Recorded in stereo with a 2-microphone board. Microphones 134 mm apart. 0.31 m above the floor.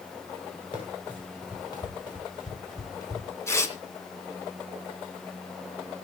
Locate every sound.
0.7 s running footsteps: 40° left (ahead or behind), 8 m; by 3.3 s 25° left (ahead or behind), 7.5 m
3.5 s tearing paper: 20° left (ahead or behind), 2.5 m